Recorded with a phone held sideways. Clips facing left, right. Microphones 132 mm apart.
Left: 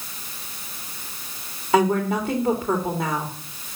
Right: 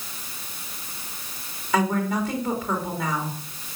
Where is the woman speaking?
30° left (ahead or behind), 3.5 m.